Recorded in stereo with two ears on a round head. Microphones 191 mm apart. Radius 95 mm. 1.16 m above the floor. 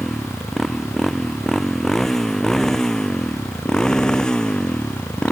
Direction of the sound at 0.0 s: Centre (ahead or behind).